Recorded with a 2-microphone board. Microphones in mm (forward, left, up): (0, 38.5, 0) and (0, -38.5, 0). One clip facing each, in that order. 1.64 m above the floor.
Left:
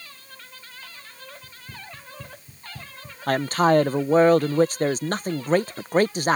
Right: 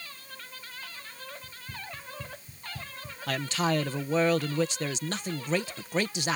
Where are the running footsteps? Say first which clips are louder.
Even; 30° left (ahead or behind); by 3.2 s 25° left (ahead or behind).